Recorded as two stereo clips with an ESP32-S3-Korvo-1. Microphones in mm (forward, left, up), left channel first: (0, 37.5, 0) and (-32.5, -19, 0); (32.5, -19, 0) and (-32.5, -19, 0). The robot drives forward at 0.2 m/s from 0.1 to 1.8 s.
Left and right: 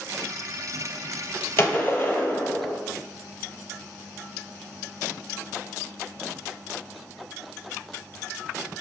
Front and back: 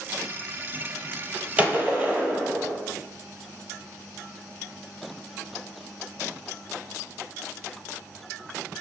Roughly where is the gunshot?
Left.